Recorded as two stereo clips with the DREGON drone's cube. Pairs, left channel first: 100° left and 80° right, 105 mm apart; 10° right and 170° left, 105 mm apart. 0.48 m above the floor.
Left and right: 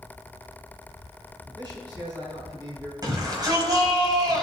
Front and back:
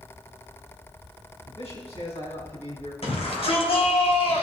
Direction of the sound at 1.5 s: 30° right.